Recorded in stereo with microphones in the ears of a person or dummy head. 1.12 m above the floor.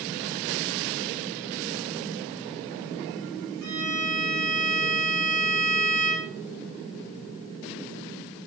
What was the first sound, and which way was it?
A violin, 80° right.